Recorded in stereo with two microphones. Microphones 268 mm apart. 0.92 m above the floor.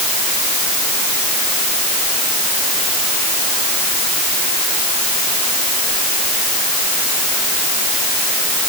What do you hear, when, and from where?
Only background noise.